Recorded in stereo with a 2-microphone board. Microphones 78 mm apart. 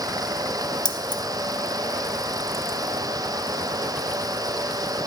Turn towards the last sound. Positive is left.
turn(degrees=60)  # may be behind; listen again after turning